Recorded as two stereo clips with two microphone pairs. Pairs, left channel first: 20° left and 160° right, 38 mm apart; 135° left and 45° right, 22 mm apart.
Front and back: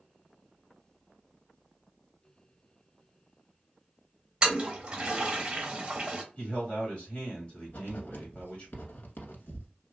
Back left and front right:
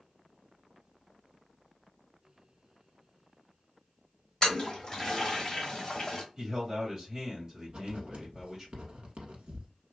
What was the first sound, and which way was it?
A toilet flushing, 175° right.